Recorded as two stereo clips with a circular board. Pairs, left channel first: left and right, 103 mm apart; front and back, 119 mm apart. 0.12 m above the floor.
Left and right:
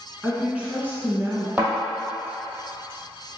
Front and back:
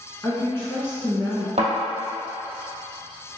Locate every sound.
0.2 s a woman speaking: 10° right, 1.3 m; by 1.5 s 55° right, 1.6 m
1.6 s a thud: 160° right, 2.0 m